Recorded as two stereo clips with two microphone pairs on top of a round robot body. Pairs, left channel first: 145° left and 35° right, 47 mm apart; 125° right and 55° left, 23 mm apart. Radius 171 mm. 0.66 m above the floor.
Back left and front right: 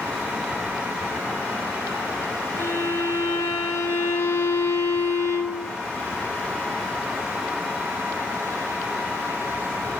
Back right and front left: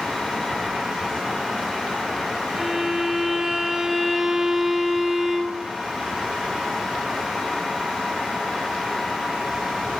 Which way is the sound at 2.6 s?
125° left.